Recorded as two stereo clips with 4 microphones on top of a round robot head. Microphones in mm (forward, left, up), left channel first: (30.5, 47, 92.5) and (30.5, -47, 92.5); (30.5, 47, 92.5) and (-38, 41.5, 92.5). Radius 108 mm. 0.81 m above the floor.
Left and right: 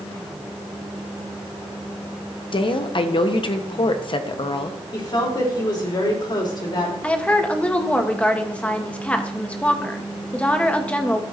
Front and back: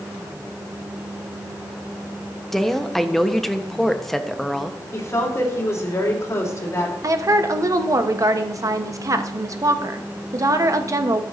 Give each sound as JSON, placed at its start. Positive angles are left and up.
{"t": 2.5, "sound": "a woman speaking", "azimuth_deg": 90, "distance_m": 1.1}
{"t": 4.9, "sound": "a woman speaking", "azimuth_deg": 50, "distance_m": 3.5}
{"t": 7.0, "sound": "a woman speaking", "azimuth_deg": 165, "distance_m": 1.1}